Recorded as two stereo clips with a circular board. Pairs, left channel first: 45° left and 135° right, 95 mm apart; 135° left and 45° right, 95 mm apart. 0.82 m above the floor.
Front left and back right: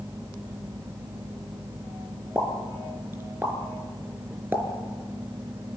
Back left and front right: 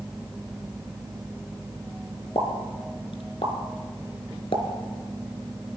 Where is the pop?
155° left, 3.5 m.